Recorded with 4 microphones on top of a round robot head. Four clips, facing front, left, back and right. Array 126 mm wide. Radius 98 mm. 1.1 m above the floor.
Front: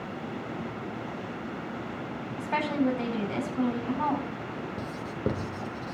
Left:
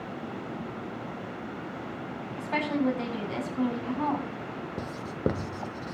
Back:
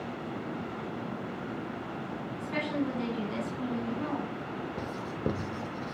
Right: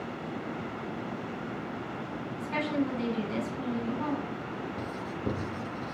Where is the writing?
85° left, 1.1 m.